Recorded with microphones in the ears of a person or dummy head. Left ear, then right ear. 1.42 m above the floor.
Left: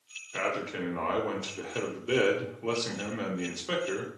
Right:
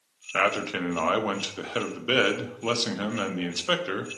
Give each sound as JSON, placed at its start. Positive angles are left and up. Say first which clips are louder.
{"t": 0.3, "sound": "a man speaking", "louder": "right 7 dB", "side_deg": -30, "distance_m": 0.5}